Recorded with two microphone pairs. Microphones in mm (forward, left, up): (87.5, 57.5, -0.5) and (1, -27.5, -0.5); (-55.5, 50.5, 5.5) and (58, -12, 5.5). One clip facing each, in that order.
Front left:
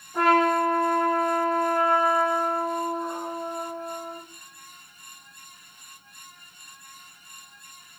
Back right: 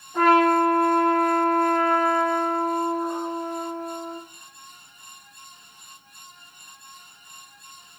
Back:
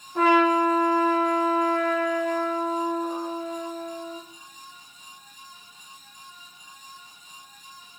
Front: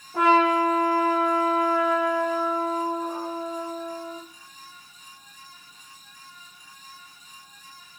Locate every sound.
0.1 s a trumpet: 45° right, 7.5 m